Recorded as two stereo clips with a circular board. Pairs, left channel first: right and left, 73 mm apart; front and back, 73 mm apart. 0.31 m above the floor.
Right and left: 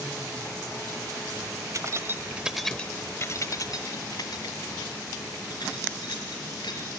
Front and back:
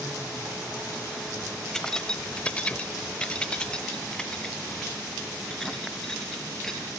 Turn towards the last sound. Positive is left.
turn(degrees=-85)